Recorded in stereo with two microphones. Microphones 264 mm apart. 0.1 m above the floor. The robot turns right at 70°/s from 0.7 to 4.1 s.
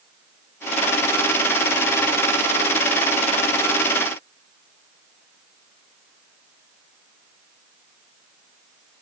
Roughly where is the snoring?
I don't hear snoring.